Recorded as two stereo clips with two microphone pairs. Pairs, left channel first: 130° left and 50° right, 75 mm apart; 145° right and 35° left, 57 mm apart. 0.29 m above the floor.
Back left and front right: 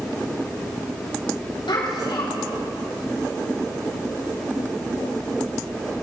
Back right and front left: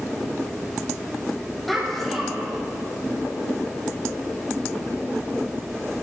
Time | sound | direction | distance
1.7 | a child speaking | 130° left | 6.5 m